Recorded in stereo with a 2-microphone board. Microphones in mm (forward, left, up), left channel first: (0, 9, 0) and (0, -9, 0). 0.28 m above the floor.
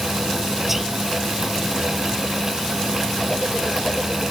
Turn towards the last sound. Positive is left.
turn(degrees=-10)  # may be behind; listen again after turning